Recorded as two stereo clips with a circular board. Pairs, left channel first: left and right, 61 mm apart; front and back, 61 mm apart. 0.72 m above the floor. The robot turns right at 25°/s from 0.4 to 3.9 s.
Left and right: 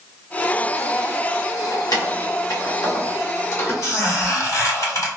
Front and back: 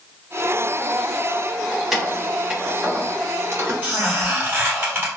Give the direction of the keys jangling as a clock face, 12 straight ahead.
9 o'clock.